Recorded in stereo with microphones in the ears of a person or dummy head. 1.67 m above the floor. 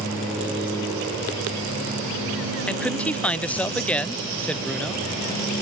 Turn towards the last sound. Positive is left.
turn(degrees=5)  # may be behind; listen again after turning